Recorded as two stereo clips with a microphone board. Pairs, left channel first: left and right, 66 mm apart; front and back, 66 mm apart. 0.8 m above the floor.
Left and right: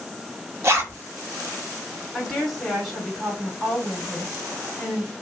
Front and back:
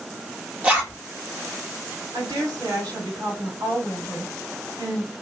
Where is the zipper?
115° right, 1.1 m.